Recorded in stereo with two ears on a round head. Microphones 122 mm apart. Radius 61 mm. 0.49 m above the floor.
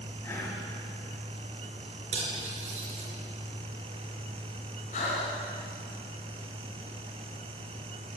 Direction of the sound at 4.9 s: 55° left (ahead or behind).